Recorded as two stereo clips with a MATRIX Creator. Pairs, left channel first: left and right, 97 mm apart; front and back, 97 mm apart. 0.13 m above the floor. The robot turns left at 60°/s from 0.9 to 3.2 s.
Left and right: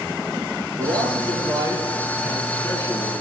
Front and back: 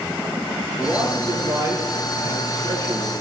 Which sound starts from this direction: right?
A man speaking, at 0.8 s.